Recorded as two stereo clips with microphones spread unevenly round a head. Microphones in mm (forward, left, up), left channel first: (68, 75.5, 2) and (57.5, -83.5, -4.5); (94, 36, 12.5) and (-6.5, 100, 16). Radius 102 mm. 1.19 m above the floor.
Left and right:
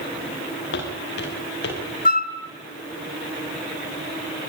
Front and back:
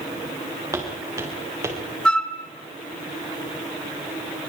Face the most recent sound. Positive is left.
turn(degrees=50)